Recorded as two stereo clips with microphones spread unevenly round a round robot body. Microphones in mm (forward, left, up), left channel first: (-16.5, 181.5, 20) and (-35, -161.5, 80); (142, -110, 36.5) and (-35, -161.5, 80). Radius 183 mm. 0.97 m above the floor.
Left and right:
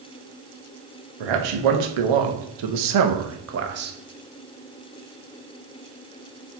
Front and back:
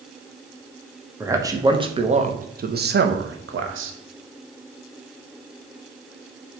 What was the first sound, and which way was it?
A man speaking, 85° right.